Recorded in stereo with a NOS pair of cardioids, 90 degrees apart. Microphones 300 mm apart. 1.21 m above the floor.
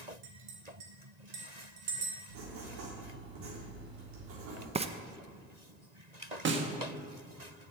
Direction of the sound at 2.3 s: 65° right.